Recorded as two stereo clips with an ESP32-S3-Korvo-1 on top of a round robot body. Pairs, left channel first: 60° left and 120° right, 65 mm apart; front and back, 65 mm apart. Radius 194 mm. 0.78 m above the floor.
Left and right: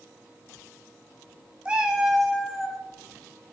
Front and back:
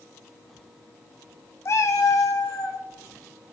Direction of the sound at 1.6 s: 45° right.